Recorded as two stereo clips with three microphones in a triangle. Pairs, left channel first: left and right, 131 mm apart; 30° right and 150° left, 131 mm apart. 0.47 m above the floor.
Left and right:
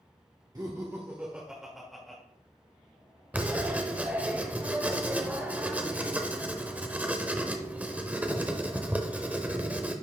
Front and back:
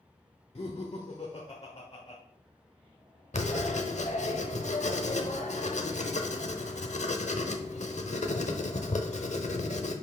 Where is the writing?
10° right, 0.9 m.